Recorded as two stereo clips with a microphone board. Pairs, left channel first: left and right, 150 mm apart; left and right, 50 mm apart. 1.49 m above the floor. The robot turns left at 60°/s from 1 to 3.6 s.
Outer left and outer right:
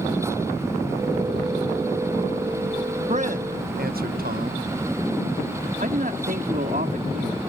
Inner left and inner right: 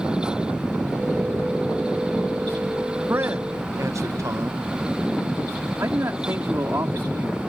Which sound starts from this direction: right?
A man speaking, at 5.8 s.